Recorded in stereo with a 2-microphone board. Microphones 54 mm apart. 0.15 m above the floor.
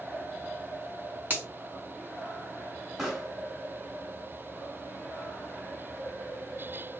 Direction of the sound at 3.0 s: 5° right (ahead or behind).